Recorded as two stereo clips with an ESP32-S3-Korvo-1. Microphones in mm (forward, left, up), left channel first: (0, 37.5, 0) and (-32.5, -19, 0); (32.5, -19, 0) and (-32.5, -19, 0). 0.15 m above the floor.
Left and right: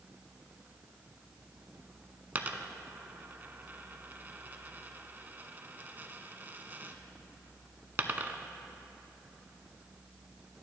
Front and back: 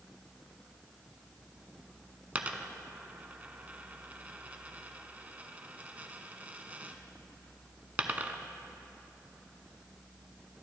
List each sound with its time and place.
2.4 s a dropped coin: 140° right, 0.5 m